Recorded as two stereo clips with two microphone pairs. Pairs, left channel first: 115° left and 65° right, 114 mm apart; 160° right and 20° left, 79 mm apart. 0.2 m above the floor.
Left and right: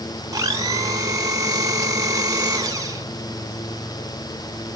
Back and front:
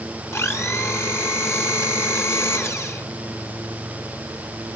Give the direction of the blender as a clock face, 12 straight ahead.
4 o'clock.